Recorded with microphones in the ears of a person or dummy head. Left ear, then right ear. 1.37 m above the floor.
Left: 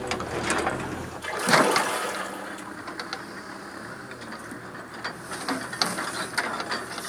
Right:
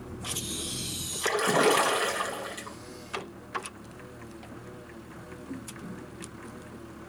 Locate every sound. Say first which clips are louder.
1.2 s a splash: left 3 dB; 70° right (ahead or behind), 2.5 m